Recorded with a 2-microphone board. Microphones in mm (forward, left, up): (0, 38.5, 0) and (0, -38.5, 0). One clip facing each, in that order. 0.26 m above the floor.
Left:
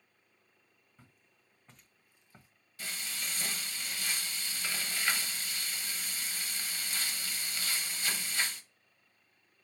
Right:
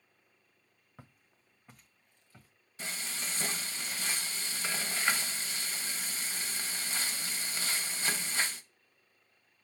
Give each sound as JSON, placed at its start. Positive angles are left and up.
{"t": 1.0, "sound": "footsteps", "side_deg": -55, "distance_m": 1.1}
{"t": 2.8, "sound": "frying", "side_deg": -25, "distance_m": 0.8}